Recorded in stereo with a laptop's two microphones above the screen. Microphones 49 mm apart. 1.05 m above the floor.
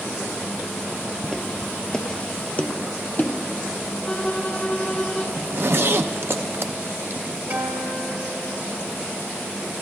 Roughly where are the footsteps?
Centre.